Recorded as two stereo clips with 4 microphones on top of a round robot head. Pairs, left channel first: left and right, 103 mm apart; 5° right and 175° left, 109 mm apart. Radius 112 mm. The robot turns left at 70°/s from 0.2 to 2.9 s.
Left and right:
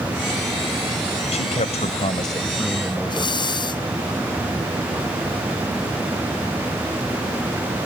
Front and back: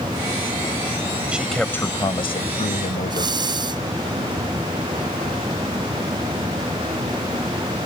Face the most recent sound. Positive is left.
turn(degrees=130)